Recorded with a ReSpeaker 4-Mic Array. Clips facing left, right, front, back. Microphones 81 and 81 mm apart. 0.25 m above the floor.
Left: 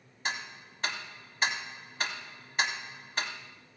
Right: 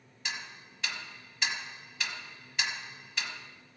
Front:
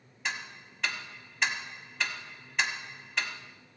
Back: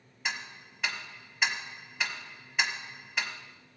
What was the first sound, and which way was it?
Ticking, 95° left.